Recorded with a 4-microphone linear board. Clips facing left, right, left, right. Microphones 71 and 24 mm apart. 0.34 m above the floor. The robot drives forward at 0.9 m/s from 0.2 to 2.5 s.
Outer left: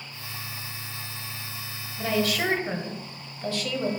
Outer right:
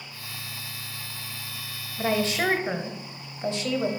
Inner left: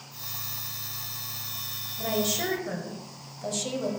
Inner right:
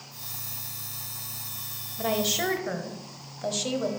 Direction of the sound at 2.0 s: 25° right (ahead or behind).